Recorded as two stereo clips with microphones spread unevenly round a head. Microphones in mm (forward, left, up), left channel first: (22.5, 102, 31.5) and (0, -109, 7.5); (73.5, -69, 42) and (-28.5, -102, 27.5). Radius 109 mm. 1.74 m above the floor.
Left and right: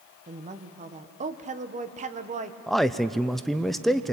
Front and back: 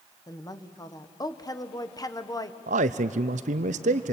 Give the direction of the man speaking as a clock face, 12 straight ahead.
6 o'clock.